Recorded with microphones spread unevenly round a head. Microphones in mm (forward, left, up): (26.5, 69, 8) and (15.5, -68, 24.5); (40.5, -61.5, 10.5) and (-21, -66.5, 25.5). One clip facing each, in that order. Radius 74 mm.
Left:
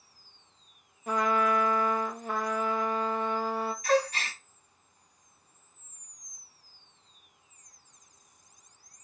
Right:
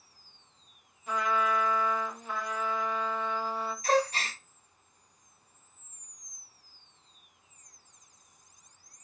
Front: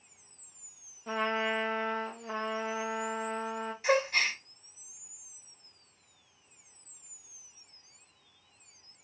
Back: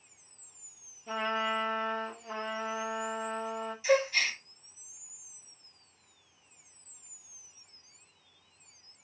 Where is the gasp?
35° right, 1.2 m.